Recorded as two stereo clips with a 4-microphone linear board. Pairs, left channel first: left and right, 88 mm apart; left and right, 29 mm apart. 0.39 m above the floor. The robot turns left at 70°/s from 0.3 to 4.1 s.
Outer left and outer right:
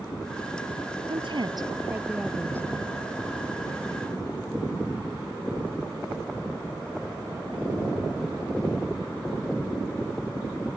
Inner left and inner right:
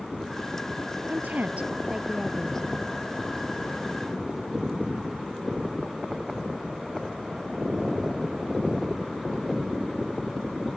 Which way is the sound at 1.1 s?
95° right.